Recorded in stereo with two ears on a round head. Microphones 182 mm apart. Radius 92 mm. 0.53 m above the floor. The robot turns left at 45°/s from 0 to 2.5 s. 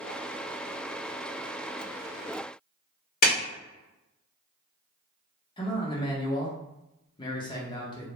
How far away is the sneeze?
No sneeze in this recording.